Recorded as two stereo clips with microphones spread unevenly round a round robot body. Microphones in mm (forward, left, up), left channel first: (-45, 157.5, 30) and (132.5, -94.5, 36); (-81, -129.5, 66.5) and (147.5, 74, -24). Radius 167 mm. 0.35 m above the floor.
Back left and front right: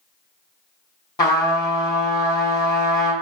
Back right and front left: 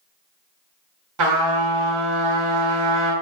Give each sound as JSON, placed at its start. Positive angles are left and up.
{"t": 1.2, "sound": "a trumpet", "azimuth_deg": 50, "distance_m": 3.0}